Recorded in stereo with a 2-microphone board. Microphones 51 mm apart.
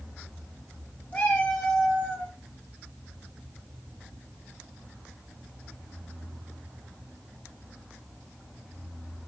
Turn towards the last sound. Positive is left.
turn(degrees=25)  # may be behind; listen again after turning